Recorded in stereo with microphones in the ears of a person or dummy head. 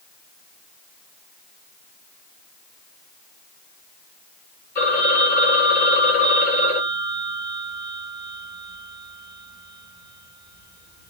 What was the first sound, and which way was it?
A phone ringing, 15° left (ahead or behind).